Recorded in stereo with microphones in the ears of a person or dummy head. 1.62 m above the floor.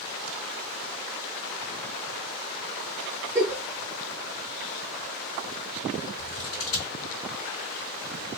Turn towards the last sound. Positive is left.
turn(degrees=40)  # may be behind; listen again after turning